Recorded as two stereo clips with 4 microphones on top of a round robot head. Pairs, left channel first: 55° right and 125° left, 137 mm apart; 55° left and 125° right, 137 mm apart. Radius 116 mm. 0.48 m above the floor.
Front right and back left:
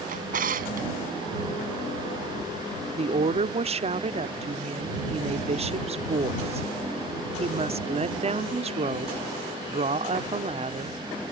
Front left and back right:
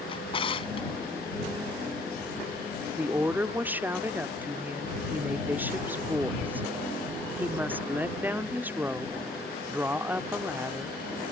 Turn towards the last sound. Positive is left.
turn(degrees=160)